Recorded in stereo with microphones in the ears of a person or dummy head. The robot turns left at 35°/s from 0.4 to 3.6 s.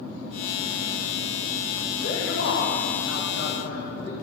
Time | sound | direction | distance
2.0 | a man speaking | 130° left | 2.0 m